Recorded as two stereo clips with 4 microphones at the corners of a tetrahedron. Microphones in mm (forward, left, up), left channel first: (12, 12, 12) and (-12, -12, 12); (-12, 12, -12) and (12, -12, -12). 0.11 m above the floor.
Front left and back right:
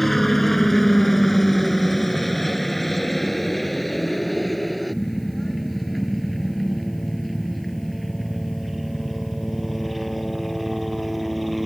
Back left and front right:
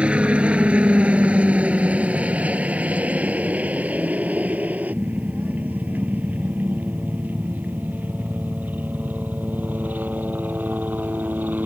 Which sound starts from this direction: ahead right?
A helicopter, at 0.0 s.